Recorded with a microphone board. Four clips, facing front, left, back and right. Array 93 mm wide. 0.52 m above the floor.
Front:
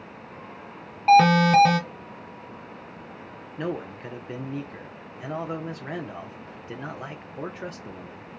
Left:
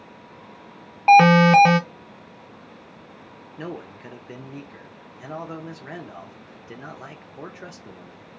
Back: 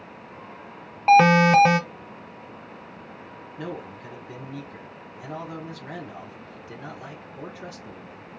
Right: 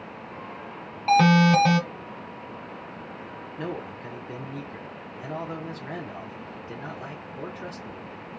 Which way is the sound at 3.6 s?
20° left.